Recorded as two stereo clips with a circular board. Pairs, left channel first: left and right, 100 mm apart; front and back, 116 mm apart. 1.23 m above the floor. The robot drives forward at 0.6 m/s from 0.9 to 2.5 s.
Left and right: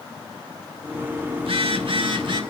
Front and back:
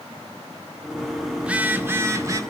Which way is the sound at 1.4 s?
100° right.